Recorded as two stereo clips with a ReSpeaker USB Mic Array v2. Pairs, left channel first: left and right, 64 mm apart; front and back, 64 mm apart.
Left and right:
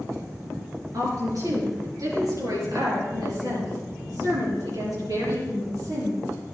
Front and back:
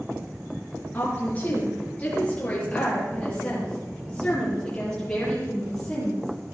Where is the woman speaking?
65° right, 4 m; by 6.3 s 85° right, 7 m.